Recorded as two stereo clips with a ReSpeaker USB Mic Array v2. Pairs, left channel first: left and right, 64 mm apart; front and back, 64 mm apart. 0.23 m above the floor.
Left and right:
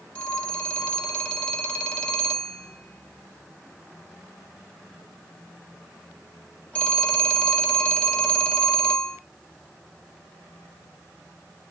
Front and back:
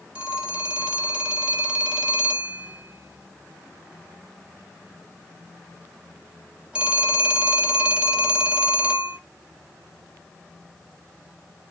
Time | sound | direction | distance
0.1 | a phone ringing | 135° left | 0.6 m